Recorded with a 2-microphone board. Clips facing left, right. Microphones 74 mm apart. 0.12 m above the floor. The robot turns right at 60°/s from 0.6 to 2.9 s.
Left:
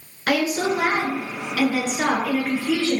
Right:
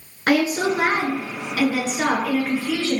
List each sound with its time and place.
0.3 s a woman speaking: 95° right, 1.4 m; by 3.0 s 45° left, 1.4 m